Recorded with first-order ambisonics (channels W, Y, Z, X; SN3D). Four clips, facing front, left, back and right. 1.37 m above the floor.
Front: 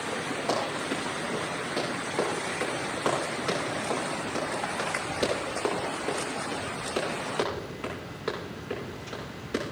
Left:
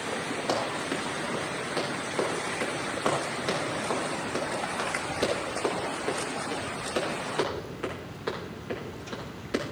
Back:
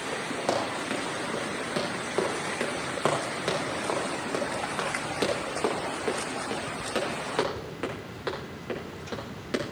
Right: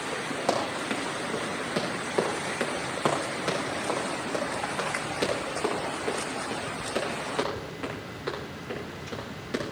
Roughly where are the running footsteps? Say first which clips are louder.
Right 2 dB, back 1 dB; behind right.